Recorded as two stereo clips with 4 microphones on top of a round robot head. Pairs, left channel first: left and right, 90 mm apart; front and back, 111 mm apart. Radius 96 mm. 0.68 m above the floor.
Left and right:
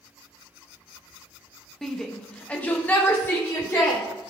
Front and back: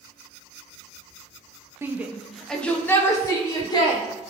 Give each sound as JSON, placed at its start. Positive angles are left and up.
{"t": 1.8, "sound": "a shout", "azimuth_deg": 170, "distance_m": 1.0}